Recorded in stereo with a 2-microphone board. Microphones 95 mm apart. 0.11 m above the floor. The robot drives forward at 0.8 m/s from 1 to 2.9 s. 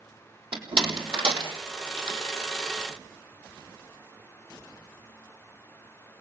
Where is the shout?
I don't hear a shout.